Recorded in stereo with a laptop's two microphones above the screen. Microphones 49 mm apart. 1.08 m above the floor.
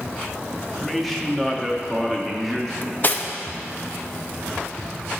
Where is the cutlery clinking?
40° left (ahead or behind), 0.6 m.